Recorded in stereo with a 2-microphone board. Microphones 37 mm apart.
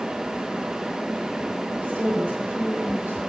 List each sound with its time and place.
1.7 s a woman speaking: 55° right (ahead or behind), 2 m